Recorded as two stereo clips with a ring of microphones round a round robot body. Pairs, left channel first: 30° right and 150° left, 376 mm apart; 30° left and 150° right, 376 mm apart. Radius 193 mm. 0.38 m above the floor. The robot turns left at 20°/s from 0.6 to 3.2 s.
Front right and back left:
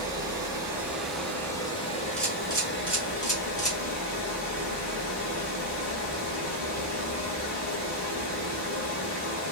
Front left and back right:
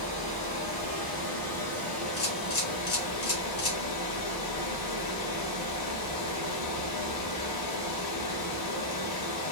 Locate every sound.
0.0 s running water: 70° left, 1.3 m; by 9.5 s 20° left, 1.3 m
2.2 s a camera shutter: 60° left, 2 m; by 3.8 s 35° left, 2 m